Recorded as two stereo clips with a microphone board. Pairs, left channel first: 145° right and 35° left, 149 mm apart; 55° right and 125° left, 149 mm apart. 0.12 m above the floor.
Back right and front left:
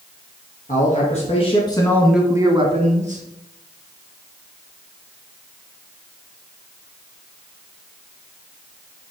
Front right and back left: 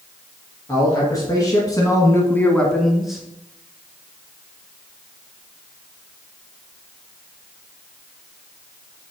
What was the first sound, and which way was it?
A man speaking, 120° right.